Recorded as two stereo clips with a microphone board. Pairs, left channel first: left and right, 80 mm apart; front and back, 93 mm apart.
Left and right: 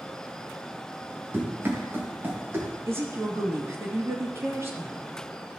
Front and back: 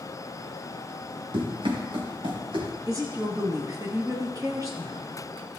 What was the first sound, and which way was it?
Running footsteps, 155° right.